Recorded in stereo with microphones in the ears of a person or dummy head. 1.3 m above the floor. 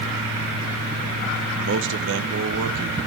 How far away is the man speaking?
About 1.0 m.